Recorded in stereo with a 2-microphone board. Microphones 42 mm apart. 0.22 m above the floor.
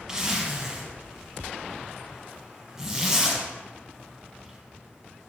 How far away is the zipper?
About 1.3 m.